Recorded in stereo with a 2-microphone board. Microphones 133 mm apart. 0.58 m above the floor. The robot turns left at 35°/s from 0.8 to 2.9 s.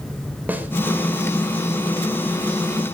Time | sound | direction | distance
0.5 | a snare drum | 15° right (ahead or behind) | 3 m